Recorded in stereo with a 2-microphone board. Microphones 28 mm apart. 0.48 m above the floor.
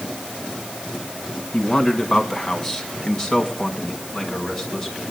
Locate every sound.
1.5 s a man speaking: 20° left (ahead or behind), 4 m; by 5.0 s 10° left (ahead or behind), 5.5 m